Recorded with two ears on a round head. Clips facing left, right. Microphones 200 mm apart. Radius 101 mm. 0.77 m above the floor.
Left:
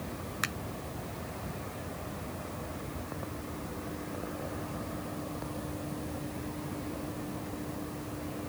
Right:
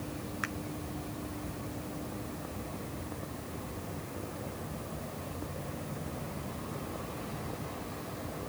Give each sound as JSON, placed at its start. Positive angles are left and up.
{"t": 0.4, "sound": "a finger snap", "side_deg": 55}